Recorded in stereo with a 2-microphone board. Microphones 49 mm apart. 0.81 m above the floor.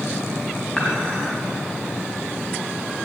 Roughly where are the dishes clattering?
Centre.